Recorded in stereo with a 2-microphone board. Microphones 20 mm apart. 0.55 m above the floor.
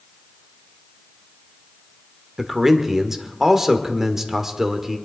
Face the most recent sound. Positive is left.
turn(degrees=-20)  # may be behind; listen again after turning